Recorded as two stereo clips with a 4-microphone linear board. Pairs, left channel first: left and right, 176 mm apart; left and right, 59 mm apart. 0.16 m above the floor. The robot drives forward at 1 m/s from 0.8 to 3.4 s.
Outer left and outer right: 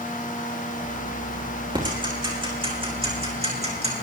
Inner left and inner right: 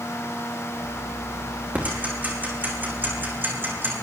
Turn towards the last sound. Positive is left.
turn(degrees=-35)  # may be behind; listen again after turning